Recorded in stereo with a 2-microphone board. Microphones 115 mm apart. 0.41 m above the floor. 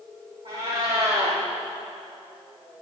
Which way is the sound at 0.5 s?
60° right (ahead or behind).